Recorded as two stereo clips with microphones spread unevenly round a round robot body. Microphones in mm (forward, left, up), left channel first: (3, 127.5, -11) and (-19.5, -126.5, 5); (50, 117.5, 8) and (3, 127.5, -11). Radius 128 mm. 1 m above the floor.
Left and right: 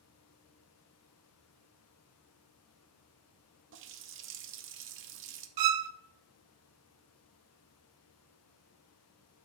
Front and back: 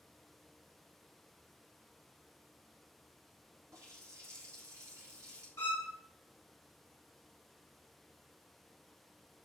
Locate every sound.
3.7 s a running tap: 140° right, 0.8 m
5.6 s a violin: 90° right, 0.6 m